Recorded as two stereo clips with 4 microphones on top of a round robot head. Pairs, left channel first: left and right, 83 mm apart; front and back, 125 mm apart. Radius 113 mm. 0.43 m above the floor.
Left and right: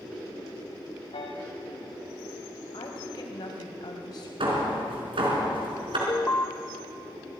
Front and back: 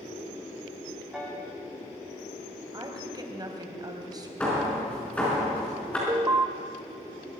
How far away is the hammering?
About 5 m.